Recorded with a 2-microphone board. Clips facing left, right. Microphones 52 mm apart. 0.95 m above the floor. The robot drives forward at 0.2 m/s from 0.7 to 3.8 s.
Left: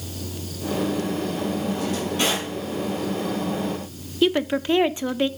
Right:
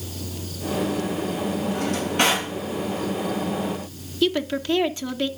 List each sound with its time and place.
1.7 s a drawer: 55° right (ahead or behind), 6.5 m
4.2 s a woman speaking: 20° left (ahead or behind), 0.9 m